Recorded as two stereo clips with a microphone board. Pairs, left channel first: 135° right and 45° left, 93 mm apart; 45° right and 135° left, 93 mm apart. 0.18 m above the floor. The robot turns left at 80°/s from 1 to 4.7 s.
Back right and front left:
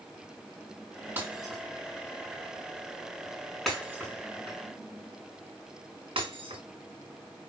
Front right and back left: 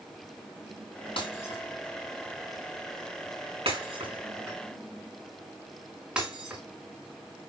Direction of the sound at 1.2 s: 20° right.